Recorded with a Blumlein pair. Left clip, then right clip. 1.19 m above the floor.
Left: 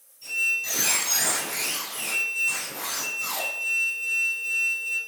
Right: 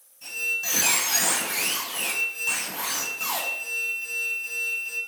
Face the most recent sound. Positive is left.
turn(degrees=-35)